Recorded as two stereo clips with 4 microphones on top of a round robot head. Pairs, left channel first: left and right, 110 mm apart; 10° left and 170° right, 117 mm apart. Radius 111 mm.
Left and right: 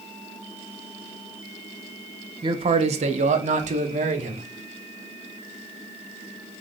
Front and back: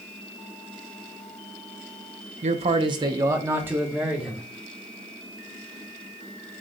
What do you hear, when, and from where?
2.4 s a man speaking: 145° right, 0.6 m; by 4.5 s 85° right, 1.7 m